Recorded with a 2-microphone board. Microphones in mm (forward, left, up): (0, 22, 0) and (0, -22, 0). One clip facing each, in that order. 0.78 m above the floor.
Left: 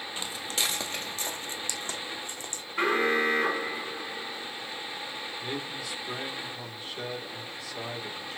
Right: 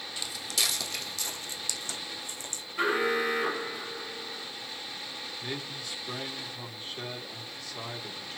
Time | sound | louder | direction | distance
0.2 | footsteps | left 1 dB | 30° left (ahead or behind) | 1.1 m
2.8 | an alarm | left 2 dB | 35° left (ahead or behind) | 4 m
5.4 | a man speaking | left 2 dB | 5° left (ahead or behind) | 2 m